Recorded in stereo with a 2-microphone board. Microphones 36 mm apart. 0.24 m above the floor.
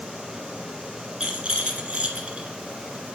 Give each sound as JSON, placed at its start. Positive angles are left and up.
{"t": 1.2, "sound": "a rattle", "side_deg": -30, "distance_m": 1.8}